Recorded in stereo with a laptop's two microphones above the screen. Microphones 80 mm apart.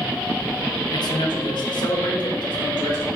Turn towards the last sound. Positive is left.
turn(degrees=70)  # may be behind; listen again after turning